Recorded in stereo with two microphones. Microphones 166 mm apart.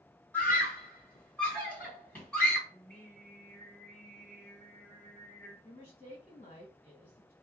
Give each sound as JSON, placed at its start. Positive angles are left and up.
{"t": 0.3, "sound": "a scream", "side_deg": 10, "distance_m": 2.0}
{"t": 2.7, "sound": "singing", "side_deg": 10, "distance_m": 1.7}
{"t": 5.6, "sound": "a woman speaking", "side_deg": 40, "distance_m": 1.9}